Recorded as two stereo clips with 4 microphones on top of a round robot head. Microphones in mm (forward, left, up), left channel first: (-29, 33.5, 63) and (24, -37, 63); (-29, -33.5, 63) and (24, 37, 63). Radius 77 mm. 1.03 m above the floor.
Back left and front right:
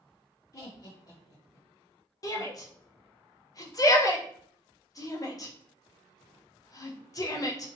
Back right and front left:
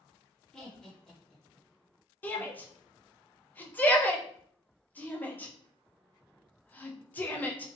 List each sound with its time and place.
0.5 s laughter: 150° left, 0.6 m
2.2 s a shout: 165° left, 0.7 m